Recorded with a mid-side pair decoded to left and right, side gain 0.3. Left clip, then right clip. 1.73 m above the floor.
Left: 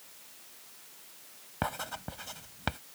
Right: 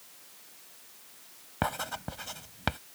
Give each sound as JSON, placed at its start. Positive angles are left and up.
{"t": 1.6, "sound": "writing", "azimuth_deg": -35}